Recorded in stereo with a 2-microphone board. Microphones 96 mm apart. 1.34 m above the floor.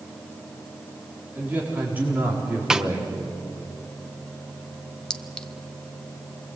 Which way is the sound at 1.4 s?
15° right (ahead or behind).